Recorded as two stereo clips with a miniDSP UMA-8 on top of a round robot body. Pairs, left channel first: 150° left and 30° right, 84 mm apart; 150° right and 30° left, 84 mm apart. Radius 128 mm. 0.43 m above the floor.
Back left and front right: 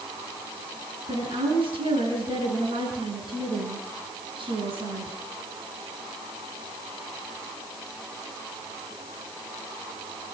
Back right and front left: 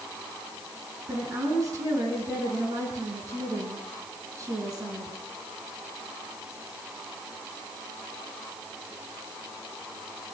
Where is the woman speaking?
20° right, 6 m.